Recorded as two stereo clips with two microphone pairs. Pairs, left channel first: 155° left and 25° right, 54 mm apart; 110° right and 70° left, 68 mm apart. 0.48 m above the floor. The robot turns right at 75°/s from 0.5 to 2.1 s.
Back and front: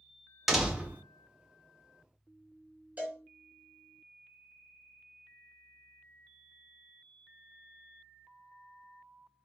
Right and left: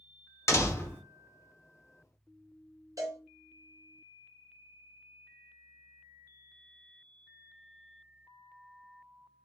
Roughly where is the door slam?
Right.